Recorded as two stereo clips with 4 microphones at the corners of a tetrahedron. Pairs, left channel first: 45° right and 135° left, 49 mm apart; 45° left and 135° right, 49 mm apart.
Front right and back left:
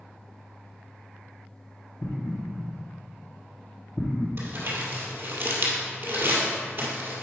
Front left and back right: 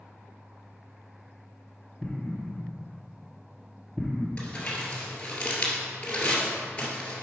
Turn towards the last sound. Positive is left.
turn(degrees=110)